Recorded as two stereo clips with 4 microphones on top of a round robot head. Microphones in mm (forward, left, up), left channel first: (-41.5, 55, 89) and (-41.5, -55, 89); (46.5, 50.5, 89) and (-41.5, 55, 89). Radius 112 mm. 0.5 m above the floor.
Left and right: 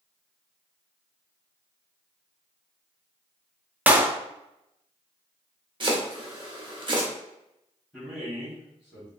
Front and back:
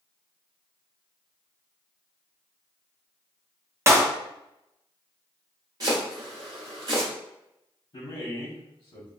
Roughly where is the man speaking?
Ahead.